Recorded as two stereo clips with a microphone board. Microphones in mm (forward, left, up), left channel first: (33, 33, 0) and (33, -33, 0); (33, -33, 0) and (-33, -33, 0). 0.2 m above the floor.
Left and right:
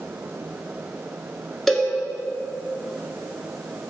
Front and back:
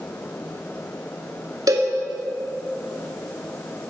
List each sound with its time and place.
1.7 s a cowbell: 175° left, 0.9 m